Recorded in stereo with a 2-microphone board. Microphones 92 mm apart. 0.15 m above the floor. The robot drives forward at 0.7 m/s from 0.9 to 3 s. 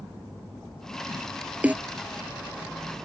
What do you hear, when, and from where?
1.6 s a snare drum: 15° right (ahead or behind)